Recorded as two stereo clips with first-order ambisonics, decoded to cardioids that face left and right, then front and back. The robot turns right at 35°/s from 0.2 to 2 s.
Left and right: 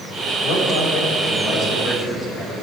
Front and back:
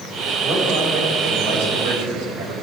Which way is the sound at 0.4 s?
105° left.